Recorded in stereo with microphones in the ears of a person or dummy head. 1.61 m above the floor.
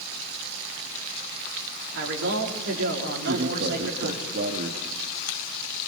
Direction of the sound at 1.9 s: 65° right (ahead or behind).